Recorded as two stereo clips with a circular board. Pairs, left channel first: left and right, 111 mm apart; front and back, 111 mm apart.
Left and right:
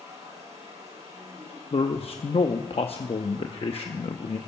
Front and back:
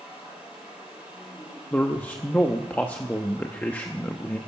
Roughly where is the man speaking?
Left.